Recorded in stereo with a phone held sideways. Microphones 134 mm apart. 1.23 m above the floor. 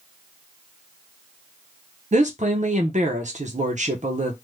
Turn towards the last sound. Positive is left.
turn(degrees=-60)  # may be behind; listen again after turning